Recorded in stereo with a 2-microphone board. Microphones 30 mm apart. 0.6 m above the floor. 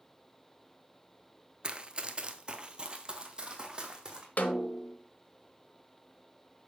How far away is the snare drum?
About 0.9 m.